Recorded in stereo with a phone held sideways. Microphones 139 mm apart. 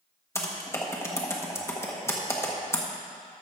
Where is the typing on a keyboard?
20° left (ahead or behind), 1.2 m.